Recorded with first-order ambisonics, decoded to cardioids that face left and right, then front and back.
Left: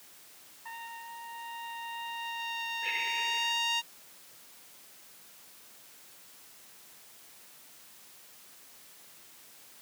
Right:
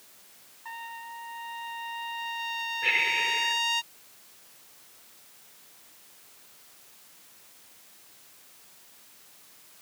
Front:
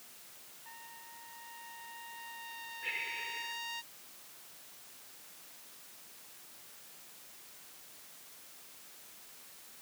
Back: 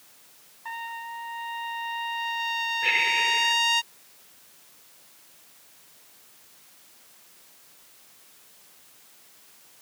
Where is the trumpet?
170° right.